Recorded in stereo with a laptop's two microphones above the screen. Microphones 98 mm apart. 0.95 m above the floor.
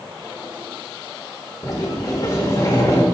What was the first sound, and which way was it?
A sliding door, 35° left (ahead or behind).